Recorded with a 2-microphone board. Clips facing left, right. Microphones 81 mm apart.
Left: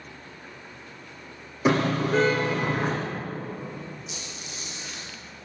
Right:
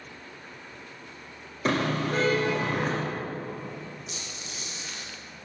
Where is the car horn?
10° left (ahead or behind), 8 m.